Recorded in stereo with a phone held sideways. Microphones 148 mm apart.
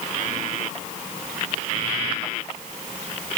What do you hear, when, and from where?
Only background noise.